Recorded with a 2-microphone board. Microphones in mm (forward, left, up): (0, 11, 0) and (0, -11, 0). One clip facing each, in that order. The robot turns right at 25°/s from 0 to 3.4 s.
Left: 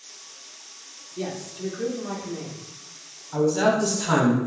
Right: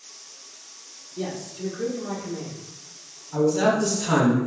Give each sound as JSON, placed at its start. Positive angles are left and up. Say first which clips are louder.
{"t": 1.2, "sound": "a man speaking", "louder": "even", "side_deg": 10, "distance_m": 0.8}
{"t": 3.3, "sound": "a man speaking", "louder": "even", "side_deg": 25, "distance_m": 1.1}